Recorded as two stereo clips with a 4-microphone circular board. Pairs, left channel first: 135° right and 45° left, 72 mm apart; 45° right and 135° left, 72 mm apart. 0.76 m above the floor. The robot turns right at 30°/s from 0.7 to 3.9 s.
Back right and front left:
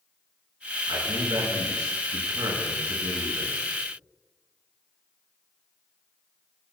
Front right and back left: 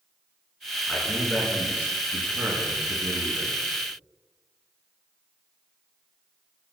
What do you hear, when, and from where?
0.9 s a man speaking: 35° left, 9 m; by 3.5 s 120° left, 9 m